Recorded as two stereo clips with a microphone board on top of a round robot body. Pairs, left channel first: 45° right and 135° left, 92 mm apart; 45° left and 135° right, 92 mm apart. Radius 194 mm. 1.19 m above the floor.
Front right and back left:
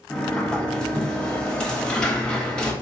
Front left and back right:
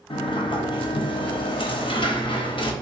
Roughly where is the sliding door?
Ahead left.